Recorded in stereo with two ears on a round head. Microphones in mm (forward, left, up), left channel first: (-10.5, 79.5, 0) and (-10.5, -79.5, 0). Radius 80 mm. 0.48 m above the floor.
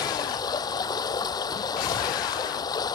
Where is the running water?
25° left (ahead or behind).